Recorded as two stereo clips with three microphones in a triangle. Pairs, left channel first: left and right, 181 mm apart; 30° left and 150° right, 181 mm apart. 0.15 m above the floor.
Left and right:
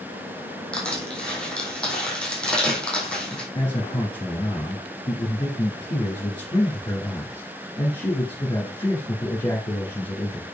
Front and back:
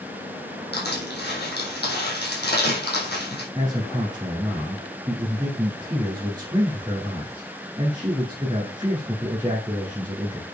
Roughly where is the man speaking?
Behind left.